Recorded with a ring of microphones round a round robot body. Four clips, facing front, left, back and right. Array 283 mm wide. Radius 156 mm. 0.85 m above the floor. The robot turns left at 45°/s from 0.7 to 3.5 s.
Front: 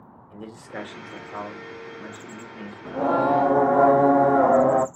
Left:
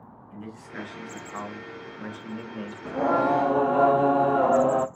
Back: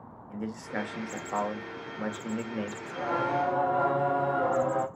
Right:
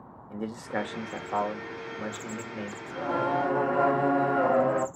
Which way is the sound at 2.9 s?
50° left.